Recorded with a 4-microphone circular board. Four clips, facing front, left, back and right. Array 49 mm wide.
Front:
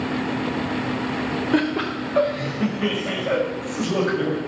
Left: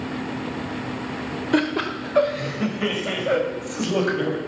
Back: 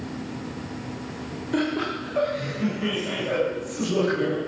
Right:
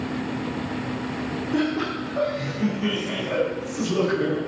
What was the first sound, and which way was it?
Laughter, 65° left.